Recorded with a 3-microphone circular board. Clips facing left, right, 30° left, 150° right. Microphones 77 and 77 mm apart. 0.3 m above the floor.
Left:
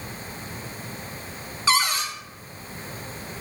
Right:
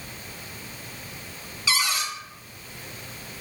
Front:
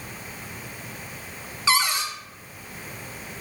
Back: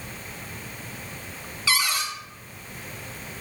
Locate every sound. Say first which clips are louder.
1.7 s a cupboard door: left 4 dB, front 3 dB; 75° left, 1.1 m